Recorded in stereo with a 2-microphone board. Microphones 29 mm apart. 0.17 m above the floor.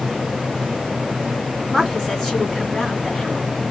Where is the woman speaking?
20° left (ahead or behind), 1.7 m.